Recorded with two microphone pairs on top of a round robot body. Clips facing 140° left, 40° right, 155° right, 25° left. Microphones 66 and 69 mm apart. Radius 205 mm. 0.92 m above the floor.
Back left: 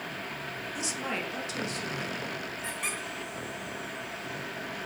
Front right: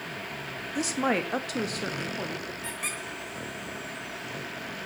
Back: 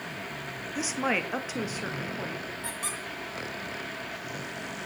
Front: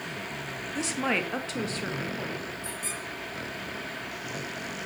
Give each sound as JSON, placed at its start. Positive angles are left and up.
{"t": 0.8, "sound": "a woman speaking", "azimuth_deg": -75, "distance_m": 1.6}
{"t": 2.6, "sound": "a squeak", "azimuth_deg": -125, "distance_m": 2.5}